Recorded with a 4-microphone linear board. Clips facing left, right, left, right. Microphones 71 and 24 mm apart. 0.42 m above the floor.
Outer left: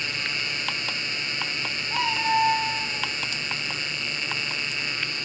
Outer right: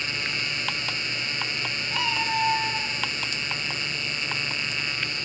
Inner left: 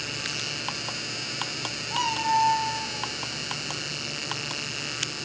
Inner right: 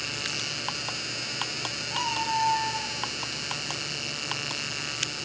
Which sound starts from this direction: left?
A cat meowing, at 1.9 s.